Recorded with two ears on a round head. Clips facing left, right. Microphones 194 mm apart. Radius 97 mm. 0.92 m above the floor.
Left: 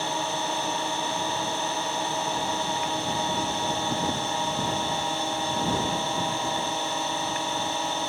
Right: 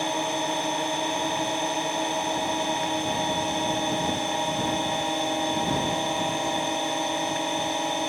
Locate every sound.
0.0 s a drone: 15° right (ahead or behind)